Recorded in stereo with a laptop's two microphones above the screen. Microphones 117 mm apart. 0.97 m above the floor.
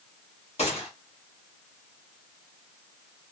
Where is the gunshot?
65° left (ahead or behind), 1.8 m.